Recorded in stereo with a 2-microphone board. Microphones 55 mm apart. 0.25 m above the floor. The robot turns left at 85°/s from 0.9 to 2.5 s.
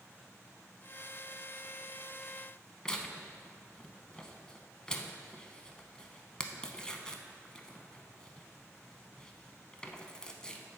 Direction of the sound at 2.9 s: 15° left (ahead or behind).